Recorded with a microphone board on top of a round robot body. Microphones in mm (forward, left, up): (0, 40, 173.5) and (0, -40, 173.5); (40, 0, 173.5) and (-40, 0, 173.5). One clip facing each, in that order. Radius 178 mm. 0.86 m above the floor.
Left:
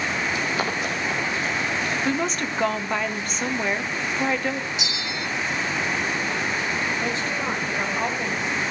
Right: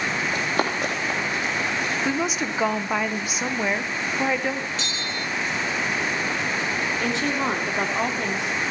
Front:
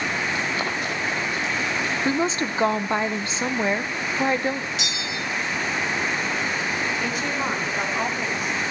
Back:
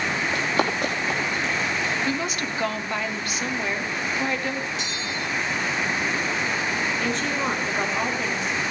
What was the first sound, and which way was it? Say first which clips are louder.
Running footsteps: right 1 dB, back 2 dB; 140° right.